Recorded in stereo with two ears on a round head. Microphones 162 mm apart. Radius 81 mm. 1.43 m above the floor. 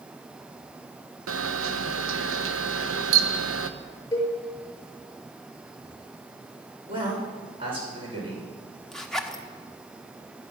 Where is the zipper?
Centre (ahead or behind), 1.1 m.